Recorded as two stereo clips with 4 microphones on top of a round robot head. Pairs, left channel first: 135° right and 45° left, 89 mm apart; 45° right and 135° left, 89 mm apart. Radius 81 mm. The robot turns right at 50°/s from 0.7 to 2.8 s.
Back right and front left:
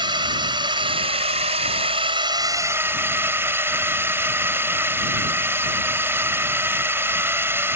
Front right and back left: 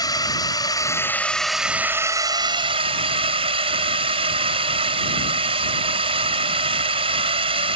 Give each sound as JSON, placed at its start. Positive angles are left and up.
{"t": 0.0, "sound": "a drone", "azimuth_deg": 5}